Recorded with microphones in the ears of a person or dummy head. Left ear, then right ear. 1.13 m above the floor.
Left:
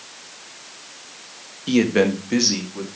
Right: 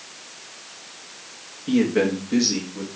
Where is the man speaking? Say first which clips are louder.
Left 3 dB; 80° left, 1.3 m; by 2.9 s 35° left (ahead or behind), 2 m.